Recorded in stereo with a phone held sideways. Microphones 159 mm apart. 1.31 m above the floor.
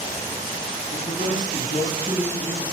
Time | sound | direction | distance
0.9 | a man speaking | 60° left (ahead or behind) | 8 m